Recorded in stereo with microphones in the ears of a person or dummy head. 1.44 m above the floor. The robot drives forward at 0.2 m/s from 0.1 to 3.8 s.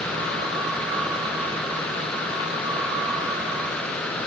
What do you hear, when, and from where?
Only background noise.